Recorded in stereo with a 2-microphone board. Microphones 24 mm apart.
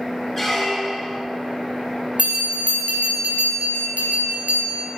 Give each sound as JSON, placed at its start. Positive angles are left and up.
{"t": 0.4, "sound": "a squeak", "side_deg": 15, "distance_m": 1.3}
{"t": 2.2, "sound": "a bell", "side_deg": -65, "distance_m": 3.5}